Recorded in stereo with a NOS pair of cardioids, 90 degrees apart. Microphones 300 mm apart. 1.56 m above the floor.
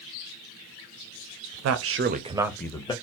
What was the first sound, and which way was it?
A man speaking, 65° right.